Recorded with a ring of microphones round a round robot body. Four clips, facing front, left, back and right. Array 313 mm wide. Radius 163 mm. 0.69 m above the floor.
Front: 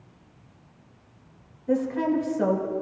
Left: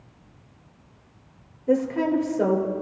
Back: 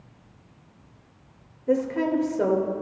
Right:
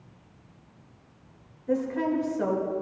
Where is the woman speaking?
135° left, 2.5 m.